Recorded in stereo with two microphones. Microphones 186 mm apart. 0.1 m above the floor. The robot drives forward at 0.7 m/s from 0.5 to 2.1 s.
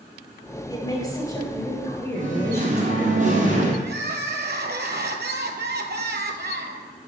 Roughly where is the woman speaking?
Left.